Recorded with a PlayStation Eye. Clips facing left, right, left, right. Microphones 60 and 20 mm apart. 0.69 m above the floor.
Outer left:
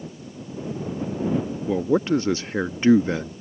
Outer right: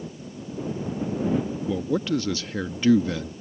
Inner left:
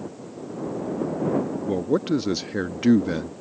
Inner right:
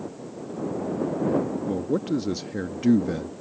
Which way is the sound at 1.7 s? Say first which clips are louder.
Outer left 6 dB, inner left 6 dB; 30° left (ahead or behind).